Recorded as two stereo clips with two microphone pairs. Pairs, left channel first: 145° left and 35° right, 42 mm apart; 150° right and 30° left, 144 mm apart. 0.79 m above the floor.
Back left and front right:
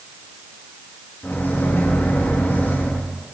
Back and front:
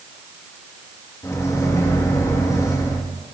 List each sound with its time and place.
1.2 s a microwave: 150° left, 0.8 m